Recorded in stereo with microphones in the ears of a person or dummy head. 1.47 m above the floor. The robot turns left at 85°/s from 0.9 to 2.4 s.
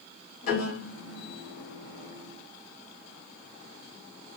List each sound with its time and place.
0.4 s a piano: 50° left (ahead or behind), 1.7 m; by 1.3 s 65° left (ahead or behind), 1.7 m